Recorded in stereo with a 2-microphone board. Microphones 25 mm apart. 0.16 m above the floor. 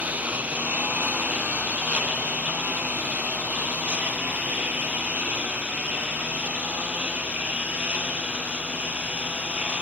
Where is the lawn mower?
80° right; by 9.8 s 65° right (ahead or behind).